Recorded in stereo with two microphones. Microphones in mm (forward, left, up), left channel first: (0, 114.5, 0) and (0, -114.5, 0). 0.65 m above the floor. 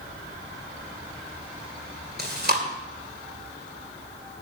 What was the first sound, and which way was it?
Chewing, 45° right (ahead or behind).